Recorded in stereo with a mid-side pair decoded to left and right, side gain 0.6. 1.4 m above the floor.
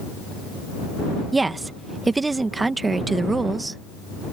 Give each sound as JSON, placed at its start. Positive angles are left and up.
{"t": 1.3, "sound": "a woman speaking", "azimuth_deg": -20}